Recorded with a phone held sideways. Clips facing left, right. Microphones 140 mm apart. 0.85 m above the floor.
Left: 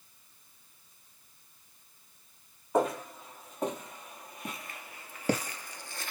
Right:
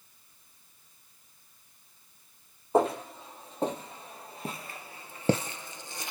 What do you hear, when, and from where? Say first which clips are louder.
2.7 s footsteps: right 3 dB; 30° right (ahead or behind), 1.9 m; by 6.1 s 15° right (ahead or behind), 0.8 m